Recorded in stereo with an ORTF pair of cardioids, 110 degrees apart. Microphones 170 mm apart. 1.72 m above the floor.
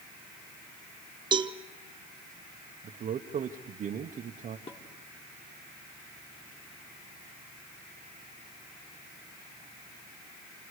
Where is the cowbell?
25° right, 0.9 m.